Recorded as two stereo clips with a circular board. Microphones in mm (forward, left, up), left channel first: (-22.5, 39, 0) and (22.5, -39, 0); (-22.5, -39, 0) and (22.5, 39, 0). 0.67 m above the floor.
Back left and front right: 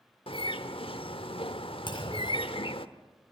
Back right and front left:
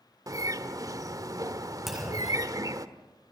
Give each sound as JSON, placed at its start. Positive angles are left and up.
{"t": 0.3, "sound": "a bird", "azimuth_deg": 110, "distance_m": 1.2}
{"t": 1.9, "sound": "a clunk", "azimuth_deg": 150, "distance_m": 4.5}